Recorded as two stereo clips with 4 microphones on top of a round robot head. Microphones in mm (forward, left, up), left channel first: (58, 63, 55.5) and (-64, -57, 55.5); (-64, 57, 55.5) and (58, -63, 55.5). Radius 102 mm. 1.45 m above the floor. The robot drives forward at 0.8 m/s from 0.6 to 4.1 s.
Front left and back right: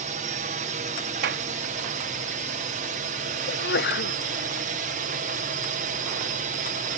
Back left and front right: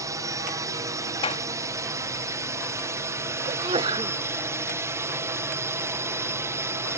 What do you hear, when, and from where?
0.0 s a drone: 110° right; by 7.0 s 115° right
1.2 s a clap: 165° right
3.5 s a sneeze: 15° left; by 4.2 s 25° left